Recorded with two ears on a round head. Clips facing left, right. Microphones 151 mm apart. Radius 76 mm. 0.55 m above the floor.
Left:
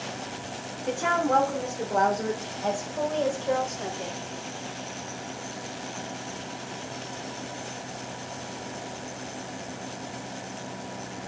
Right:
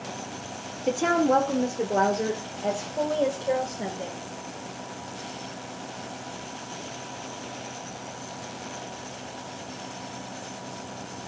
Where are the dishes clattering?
I don't hear dishes clattering.